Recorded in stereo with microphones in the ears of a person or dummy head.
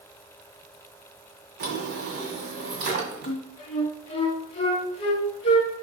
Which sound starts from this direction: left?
A flute, at 3.3 s.